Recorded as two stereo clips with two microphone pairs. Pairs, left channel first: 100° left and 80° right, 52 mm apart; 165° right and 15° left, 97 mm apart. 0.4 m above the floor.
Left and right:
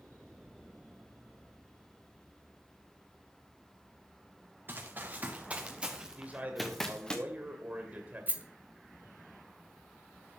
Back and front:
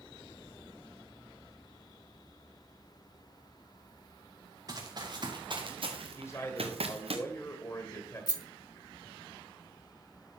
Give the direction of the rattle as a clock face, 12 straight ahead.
4 o'clock.